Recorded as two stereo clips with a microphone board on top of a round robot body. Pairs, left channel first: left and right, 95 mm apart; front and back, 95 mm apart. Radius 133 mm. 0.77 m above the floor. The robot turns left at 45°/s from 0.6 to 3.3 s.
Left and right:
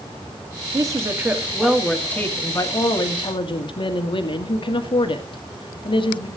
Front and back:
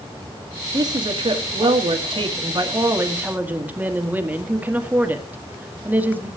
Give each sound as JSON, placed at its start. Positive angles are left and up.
{"t": 0.7, "sound": "a woman speaking", "azimuth_deg": -135, "distance_m": 1.8}